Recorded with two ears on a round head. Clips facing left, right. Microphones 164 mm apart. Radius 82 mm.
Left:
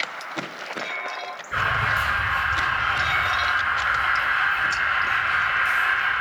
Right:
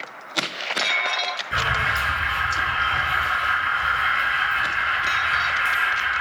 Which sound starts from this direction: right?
An alarm, at 1.5 s.